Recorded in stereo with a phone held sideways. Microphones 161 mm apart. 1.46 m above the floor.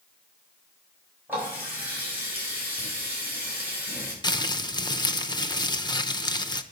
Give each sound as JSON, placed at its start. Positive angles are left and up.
{"t": 1.3, "sound": "a running tap", "side_deg": -15, "distance_m": 7.0}
{"t": 4.2, "sound": "crumpling", "side_deg": 25, "distance_m": 0.8}